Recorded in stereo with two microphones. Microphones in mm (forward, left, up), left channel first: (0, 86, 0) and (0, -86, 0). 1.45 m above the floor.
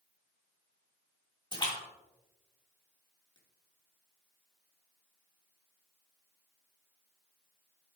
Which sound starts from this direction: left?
A splash, at 1.5 s.